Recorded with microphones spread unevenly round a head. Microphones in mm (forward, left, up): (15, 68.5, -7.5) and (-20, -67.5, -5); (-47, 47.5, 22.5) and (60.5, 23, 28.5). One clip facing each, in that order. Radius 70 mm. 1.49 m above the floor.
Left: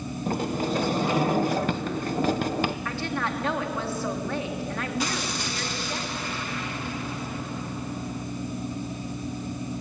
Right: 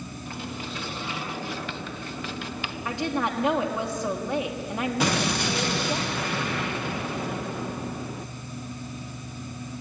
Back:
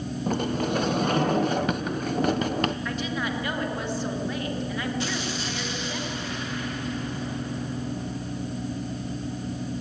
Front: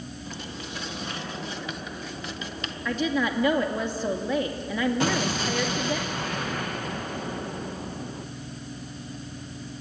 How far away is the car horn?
I don't hear a car horn.